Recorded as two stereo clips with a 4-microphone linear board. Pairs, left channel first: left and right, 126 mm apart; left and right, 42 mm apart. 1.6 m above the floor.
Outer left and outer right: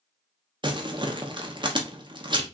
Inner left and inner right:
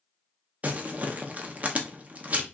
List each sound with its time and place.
0.6 s crumpling: 40° right (ahead or behind), 0.9 m